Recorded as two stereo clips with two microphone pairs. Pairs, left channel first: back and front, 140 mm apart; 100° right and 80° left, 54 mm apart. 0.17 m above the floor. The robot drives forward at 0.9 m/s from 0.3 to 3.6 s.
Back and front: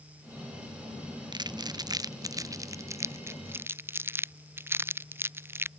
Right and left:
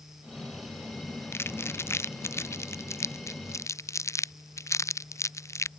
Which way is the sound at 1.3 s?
60° right.